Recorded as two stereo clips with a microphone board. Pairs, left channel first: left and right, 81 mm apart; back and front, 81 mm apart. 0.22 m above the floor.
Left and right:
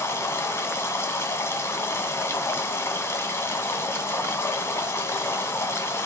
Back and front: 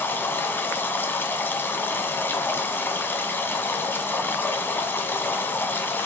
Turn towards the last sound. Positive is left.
turn(degrees=130)